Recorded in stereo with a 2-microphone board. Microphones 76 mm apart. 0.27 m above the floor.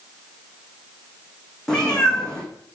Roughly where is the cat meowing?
Centre.